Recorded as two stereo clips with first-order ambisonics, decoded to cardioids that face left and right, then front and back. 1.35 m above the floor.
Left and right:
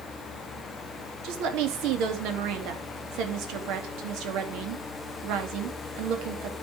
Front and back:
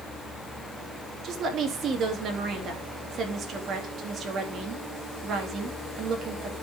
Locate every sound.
1.2 s a woman speaking: 120° right, 2.5 m